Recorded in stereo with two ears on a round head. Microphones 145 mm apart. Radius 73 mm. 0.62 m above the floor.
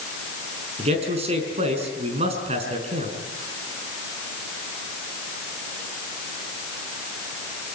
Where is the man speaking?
40° right (ahead or behind), 5.5 m.